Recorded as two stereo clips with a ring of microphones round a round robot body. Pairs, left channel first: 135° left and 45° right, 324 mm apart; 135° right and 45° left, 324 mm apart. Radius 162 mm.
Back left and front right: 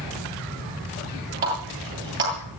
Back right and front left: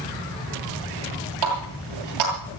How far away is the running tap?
About 9.5 m.